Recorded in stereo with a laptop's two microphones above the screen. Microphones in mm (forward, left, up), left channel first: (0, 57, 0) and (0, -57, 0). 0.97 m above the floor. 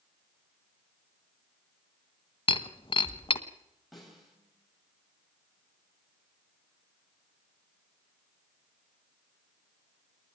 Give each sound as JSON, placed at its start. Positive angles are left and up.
{"t": 2.5, "sound": "breaking glass", "side_deg": 50, "distance_m": 1.2}
{"t": 3.9, "sound": "a snare drum", "side_deg": 0, "distance_m": 5.0}